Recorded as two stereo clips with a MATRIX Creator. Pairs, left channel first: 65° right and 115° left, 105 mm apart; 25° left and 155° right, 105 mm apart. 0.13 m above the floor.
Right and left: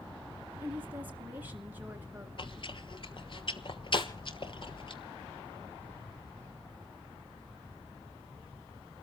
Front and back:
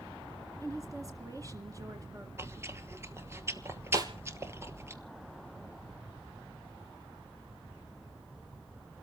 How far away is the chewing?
About 1.1 m.